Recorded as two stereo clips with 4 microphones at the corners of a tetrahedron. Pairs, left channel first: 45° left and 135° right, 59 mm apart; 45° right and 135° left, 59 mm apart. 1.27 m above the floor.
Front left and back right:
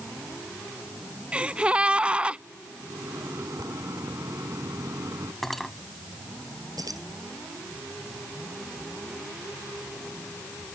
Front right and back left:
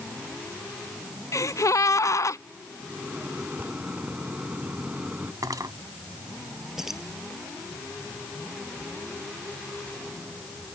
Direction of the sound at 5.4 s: 130° left.